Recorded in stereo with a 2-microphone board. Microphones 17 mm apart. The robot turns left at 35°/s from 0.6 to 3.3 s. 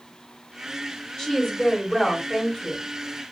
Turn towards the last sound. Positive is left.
turn(degrees=25)